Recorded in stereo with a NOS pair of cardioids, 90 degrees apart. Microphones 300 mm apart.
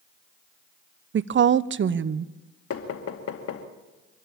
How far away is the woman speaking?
About 0.8 m.